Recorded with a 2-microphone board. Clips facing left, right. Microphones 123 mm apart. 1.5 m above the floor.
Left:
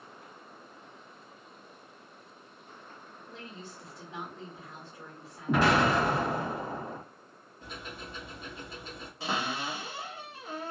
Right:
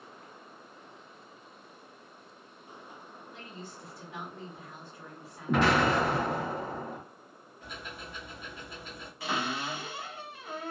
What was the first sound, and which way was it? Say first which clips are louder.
A woman speaking: left 1 dB; 30° left (ahead or behind).